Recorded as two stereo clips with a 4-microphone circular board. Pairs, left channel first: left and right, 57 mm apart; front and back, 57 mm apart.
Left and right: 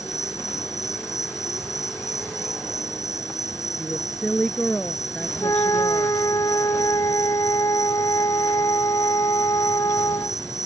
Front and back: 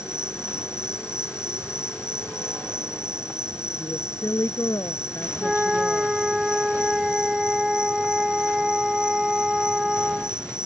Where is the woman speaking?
20° left.